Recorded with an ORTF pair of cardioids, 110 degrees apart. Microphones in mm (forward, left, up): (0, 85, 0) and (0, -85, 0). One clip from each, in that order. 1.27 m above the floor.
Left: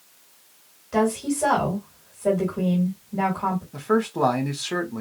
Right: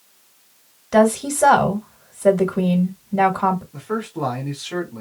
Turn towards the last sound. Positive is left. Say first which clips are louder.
# left 4 dB
turn(degrees=30)